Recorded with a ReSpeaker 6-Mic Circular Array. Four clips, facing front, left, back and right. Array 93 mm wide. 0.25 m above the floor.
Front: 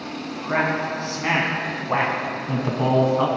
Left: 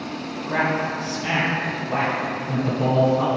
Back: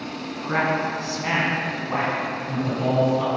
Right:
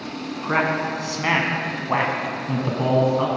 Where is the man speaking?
95° right, 2.5 m; by 3.3 s 15° right, 2.0 m.